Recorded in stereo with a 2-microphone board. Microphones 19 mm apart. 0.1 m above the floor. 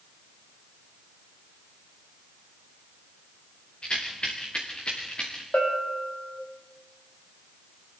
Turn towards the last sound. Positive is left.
turn(degrees=65)  # may be behind; listen again after turning